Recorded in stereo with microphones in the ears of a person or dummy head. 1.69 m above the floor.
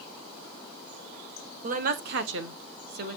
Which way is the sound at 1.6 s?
50° right (ahead or behind).